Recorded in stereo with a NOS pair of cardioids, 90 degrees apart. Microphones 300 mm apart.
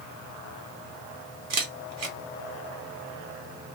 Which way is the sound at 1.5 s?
65° right.